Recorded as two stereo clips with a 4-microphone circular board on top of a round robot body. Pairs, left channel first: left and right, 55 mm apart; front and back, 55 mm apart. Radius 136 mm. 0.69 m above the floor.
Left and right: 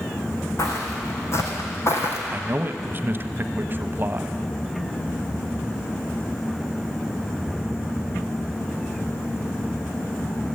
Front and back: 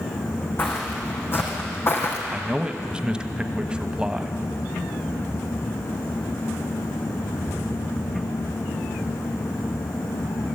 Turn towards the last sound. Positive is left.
turn(degrees=-115)